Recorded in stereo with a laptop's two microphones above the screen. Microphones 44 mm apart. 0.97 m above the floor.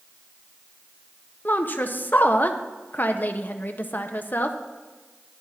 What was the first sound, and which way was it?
A woman speaking, 45° left (ahead or behind).